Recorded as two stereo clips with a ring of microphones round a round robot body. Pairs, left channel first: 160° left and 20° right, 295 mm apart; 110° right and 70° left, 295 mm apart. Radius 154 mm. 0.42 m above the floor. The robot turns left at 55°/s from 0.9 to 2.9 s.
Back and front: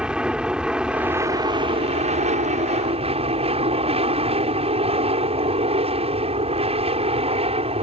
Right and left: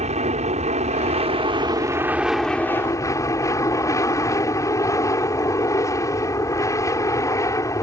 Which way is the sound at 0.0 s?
60° left.